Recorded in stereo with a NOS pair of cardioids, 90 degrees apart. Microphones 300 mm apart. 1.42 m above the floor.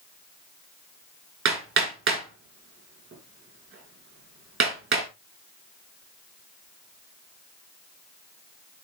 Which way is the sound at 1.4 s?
45° right.